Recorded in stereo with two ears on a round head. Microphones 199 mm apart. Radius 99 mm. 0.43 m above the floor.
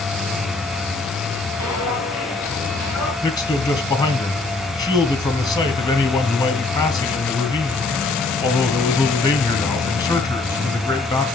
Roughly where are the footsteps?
Left.